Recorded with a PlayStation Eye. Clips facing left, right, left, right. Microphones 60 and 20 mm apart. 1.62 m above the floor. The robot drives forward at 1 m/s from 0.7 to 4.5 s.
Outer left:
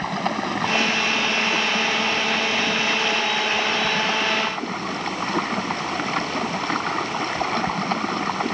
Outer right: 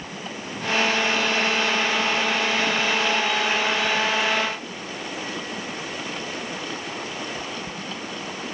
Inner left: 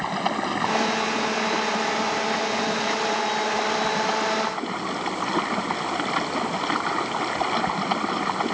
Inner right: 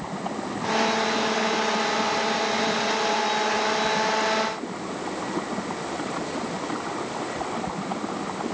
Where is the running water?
80° left; by 8.6 s 65° left (ahead or behind).